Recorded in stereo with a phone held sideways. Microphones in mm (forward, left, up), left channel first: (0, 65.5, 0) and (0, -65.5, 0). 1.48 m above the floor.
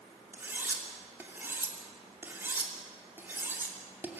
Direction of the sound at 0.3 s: 15° right (ahead or behind).